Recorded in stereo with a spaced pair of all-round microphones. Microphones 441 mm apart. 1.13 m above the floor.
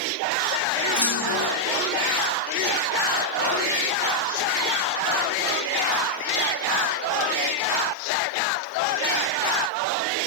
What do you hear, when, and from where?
1.0 s a clunk: 60° left (ahead or behind), 9.5 m